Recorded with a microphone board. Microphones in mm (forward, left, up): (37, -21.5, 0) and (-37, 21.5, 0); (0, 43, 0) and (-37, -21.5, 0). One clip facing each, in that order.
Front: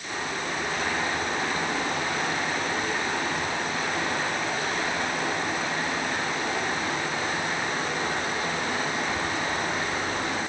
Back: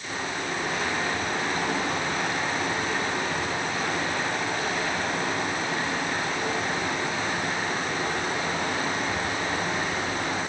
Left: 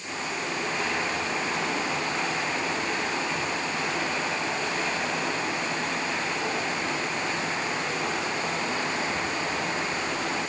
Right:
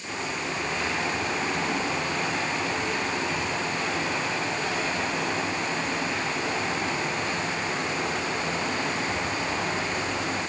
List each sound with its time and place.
Only background noise.